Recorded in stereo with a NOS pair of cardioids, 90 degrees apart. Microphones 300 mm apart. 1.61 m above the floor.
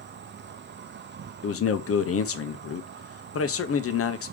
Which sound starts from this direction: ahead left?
A man speaking, at 1.4 s.